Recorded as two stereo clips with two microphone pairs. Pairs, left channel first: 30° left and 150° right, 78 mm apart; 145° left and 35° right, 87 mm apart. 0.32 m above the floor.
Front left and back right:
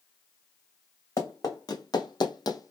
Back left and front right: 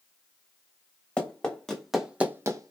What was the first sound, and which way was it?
Running footsteps, 75° left.